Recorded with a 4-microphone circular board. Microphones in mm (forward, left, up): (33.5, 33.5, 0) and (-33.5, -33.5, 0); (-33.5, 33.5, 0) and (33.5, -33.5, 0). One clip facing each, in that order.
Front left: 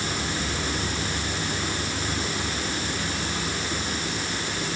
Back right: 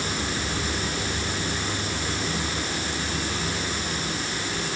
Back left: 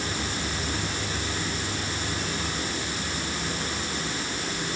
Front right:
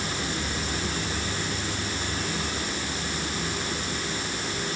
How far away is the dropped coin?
No dropped coin in this recording.